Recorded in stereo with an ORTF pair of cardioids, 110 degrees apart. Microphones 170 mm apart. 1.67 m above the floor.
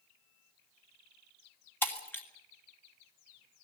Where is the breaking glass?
10° left, 2.5 m.